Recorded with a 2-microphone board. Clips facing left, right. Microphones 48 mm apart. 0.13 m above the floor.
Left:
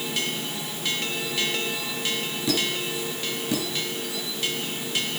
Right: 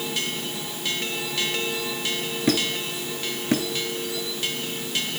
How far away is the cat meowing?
No cat meowing in this recording.